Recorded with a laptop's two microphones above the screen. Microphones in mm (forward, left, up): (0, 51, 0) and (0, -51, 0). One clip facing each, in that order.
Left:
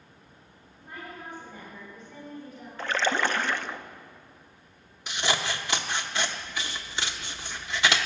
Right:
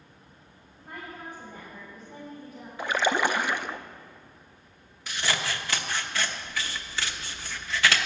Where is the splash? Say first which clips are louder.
Right 2 dB; 10° right (ahead or behind), 0.5 m.